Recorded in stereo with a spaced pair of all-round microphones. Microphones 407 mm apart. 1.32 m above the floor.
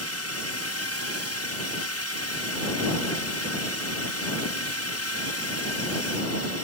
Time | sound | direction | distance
0.0 | a drone | 35° left (ahead or behind) | ?